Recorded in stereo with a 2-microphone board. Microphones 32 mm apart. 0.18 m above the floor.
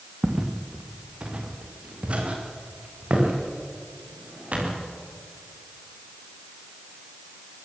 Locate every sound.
0.2 s footsteps: 30° right (ahead or behind), 3 m; by 4.8 s 45° right (ahead or behind), 9.5 m